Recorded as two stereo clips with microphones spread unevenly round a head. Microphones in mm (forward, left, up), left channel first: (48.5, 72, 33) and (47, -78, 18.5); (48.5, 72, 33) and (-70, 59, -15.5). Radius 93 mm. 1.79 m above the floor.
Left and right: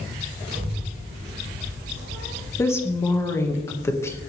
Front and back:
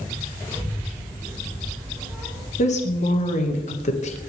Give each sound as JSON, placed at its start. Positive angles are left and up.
{"t": 0.5, "sound": "a child speaking", "azimuth_deg": -90, "distance_m": 4.5}
{"t": 2.6, "sound": "a woman speaking", "azimuth_deg": 15, "distance_m": 2.0}